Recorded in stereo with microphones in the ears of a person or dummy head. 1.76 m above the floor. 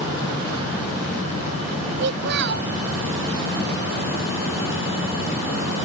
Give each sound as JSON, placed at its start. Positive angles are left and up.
{"t": 2.0, "sound": "a child speaking", "side_deg": -65}